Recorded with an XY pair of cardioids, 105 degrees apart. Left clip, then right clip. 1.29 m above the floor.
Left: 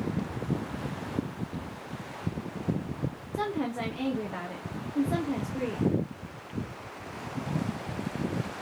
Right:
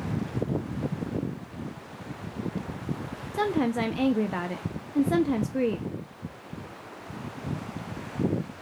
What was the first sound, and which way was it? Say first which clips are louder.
A woman speaking: right 5 dB; 50° right.